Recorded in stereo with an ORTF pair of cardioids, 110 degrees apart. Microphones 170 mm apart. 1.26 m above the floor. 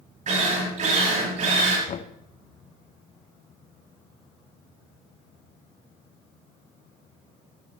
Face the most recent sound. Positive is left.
turn(degrees=45)